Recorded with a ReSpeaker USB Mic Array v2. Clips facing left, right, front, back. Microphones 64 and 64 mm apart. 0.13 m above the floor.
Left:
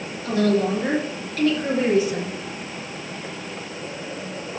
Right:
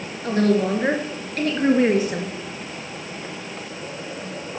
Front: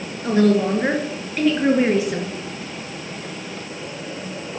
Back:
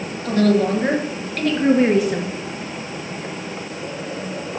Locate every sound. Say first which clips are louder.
0.2 s a woman speaking: right 1 dB, even; 55° right, 2.5 m; by 2.3 s 95° right, 2.5 m